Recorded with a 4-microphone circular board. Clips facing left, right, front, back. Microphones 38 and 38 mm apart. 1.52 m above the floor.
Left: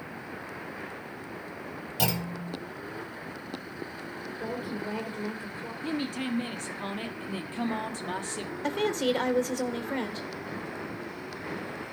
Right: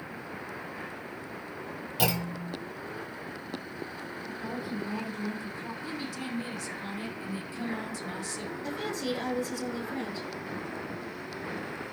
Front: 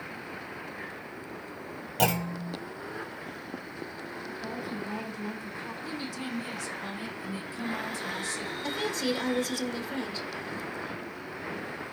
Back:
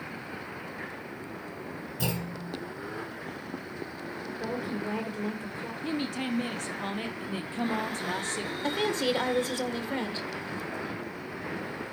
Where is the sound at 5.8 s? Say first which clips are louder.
Left 8 dB, back 8 dB; 135° left, 1.1 m.